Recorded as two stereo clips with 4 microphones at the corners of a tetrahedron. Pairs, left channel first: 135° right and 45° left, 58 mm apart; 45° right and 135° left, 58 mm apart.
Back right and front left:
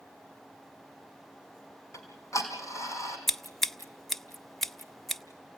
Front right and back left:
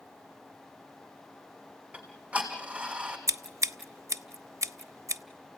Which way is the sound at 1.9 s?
155° right.